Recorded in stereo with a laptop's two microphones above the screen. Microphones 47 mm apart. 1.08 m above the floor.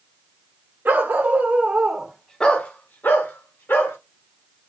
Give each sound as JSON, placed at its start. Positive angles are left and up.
{"t": 0.8, "sound": "a dog barking", "side_deg": -45, "distance_m": 1.2}